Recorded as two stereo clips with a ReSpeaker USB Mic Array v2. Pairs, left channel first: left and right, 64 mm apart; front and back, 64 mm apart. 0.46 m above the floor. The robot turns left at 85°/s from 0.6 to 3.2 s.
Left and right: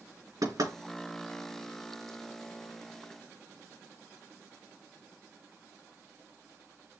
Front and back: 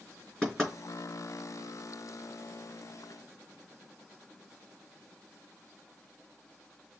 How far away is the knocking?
About 4 m.